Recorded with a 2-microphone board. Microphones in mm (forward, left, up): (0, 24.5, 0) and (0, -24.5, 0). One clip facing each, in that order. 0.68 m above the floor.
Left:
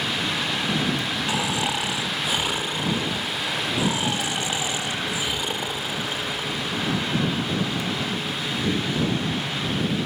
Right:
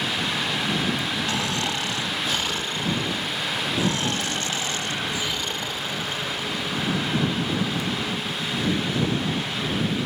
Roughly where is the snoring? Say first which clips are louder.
Left 1 dB; centre.